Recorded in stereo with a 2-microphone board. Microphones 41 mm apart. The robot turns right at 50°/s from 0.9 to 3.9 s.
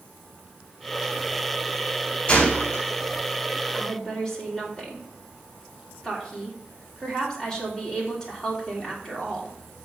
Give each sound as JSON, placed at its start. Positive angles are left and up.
{"t": 2.3, "sound": "a gunshot", "side_deg": 20, "distance_m": 4.0}
{"t": 3.7, "sound": "a woman speaking", "side_deg": 10, "distance_m": 3.0}